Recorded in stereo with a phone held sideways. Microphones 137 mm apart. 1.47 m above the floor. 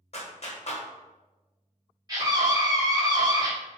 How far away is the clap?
About 0.7 m.